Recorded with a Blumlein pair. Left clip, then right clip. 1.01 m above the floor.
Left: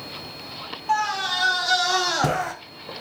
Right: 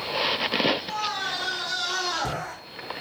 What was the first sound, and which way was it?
A scream, 35° left.